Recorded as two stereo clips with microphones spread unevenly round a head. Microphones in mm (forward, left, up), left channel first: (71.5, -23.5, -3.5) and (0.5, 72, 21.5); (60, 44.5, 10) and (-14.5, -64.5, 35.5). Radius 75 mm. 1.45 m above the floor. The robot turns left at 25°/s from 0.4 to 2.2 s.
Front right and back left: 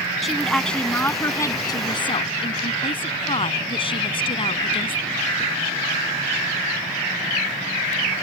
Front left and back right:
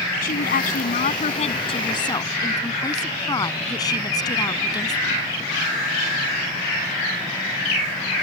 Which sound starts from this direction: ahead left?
A woman speaking, at 0.2 s.